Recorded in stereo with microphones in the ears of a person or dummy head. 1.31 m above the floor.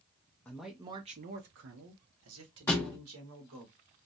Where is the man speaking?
5° left (ahead or behind), 0.5 m; by 3.7 s 85° right, 1.7 m.